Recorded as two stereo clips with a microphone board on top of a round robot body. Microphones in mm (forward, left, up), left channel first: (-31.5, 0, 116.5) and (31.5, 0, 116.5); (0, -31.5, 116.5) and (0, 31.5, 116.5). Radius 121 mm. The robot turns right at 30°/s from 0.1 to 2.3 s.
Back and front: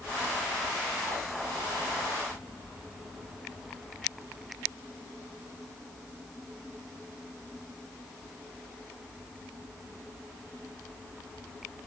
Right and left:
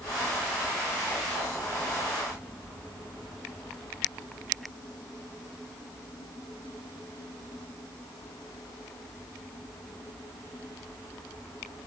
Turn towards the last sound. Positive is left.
No sound to turn to.